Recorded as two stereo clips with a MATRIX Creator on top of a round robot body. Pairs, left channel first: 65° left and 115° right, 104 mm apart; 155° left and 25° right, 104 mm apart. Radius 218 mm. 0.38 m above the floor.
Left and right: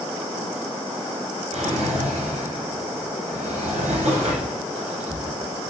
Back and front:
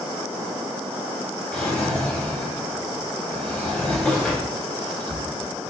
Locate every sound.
1.5 s a drawer: 125° right, 0.8 m